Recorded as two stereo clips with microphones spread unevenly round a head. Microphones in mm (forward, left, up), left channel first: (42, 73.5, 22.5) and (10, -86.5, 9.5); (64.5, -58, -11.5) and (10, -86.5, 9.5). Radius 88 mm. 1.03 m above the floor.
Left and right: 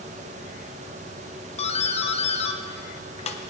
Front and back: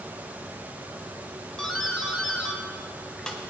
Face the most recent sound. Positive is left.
turn(degrees=70)